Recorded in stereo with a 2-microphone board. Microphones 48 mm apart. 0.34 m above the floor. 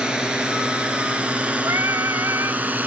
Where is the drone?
15° right (ahead or behind); by 2.9 s 35° right (ahead or behind).